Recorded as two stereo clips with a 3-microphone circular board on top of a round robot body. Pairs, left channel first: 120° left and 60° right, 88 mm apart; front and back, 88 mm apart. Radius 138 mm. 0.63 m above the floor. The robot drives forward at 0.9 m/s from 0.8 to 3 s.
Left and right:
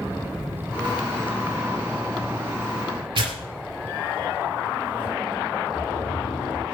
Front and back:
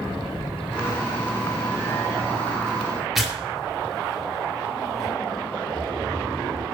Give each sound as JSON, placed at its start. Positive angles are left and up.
{"t": 3.1, "sound": "tearing paper", "azimuth_deg": -90, "distance_m": 2.5}
{"t": 5.7, "sound": "snoring", "azimuth_deg": 130, "distance_m": 1.5}